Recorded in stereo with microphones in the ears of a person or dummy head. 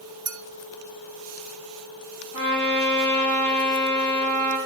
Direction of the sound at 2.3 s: 30° left (ahead or behind).